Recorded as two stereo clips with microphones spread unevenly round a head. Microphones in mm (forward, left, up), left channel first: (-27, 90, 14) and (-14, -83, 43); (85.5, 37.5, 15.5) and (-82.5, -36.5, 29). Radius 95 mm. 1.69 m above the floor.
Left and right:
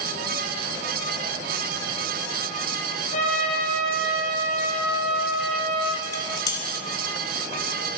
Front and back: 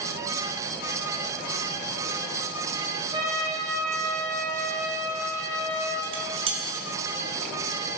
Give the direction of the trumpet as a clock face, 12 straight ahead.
7 o'clock.